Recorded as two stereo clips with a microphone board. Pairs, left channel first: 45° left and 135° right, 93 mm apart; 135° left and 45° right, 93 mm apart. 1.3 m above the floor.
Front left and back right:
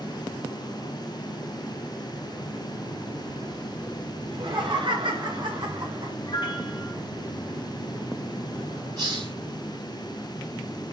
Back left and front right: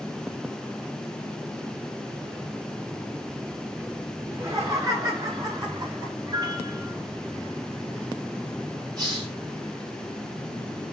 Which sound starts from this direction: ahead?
A piano, at 6.3 s.